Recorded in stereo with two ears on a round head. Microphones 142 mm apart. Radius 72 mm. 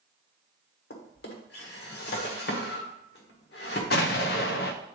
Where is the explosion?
60° left (ahead or behind), 0.7 m.